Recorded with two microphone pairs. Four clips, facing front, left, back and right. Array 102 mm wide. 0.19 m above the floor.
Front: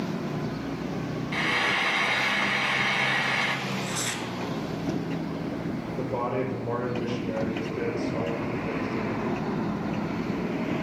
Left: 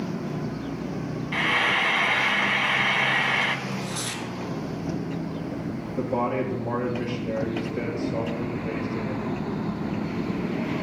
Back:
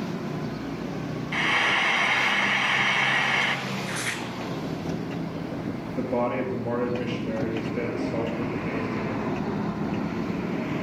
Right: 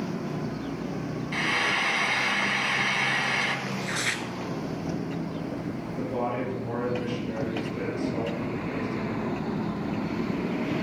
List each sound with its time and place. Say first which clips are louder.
1.3 s frying: left 4 dB, back 3 dB; 125° left, 1.0 m
3.7 s tearing paper: even, even; 110° right, 1.2 m
6.0 s a man speaking: left 4 dB, back 3 dB; 135° left, 2.5 m